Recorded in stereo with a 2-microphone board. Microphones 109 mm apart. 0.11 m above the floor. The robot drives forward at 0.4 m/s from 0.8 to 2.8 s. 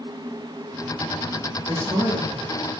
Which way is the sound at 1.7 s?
45° right (ahead or behind).